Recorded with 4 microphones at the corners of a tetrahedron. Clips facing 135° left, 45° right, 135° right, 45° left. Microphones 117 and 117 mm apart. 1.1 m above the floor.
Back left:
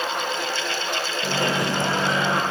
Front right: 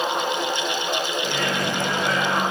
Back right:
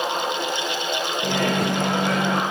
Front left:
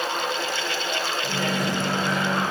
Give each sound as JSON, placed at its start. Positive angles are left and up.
{"t": 1.2, "sound": "a microwave", "azimuth_deg": -160, "distance_m": 0.8}